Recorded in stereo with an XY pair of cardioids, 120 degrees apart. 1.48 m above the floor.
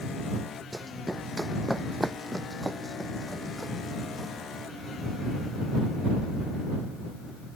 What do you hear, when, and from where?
0.7 s running footsteps: 5° right